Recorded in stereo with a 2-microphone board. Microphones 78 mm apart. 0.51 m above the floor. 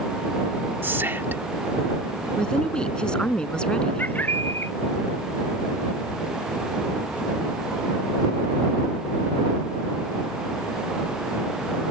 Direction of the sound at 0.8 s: 30° right (ahead or behind).